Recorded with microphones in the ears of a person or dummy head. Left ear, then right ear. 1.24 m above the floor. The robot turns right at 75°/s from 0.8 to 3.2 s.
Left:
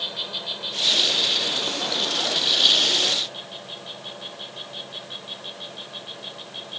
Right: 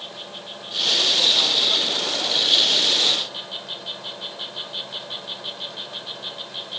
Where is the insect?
40° left; by 6.8 s 140° right.